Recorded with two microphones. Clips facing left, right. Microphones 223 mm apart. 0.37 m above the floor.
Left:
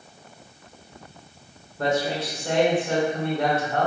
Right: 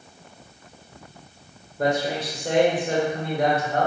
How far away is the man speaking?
About 1.2 m.